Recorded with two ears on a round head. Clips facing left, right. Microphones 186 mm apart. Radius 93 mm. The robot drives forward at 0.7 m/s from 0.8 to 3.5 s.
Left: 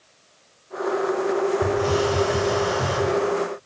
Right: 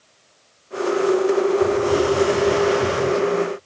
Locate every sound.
1.6 s a hiss: 25° left (ahead or behind), 7.5 m